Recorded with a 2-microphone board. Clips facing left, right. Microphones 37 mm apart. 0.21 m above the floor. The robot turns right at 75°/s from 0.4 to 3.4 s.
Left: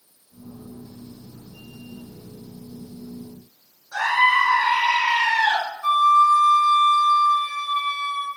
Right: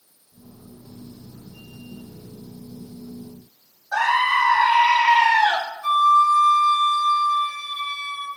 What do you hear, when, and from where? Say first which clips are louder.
3.9 s a scream: left 1 dB; 80° right, 6.5 m
5.8 s a flute: even; 30° left (ahead or behind), 3 m